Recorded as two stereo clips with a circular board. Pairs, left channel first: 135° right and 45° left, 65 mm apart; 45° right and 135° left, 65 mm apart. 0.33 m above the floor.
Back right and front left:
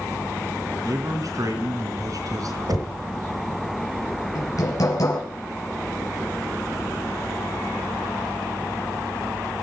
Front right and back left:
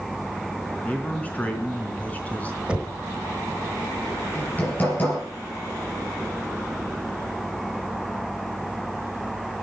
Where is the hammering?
110° right, 5.5 m.